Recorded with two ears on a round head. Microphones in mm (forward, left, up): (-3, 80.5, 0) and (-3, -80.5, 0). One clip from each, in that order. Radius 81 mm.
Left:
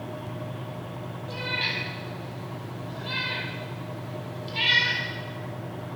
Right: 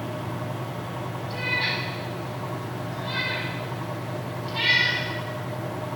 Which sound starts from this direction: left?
A cat meowing, at 1.3 s.